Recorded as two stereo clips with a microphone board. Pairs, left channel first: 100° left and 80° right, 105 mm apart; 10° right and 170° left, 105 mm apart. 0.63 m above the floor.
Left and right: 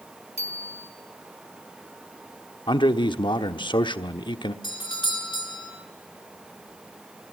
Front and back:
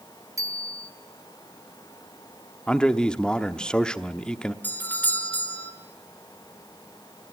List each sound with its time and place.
0.4 s a bicycle bell: 110° left, 4 m
2.7 s a man speaking: 70° left, 1.0 m
4.6 s a doorbell: 60° left, 3 m